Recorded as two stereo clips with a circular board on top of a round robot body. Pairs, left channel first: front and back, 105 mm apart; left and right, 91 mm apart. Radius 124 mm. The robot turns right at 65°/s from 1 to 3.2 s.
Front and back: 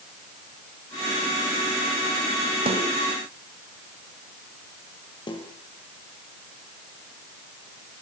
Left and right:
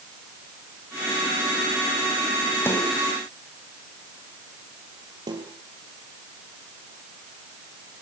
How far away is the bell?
I don't hear a bell.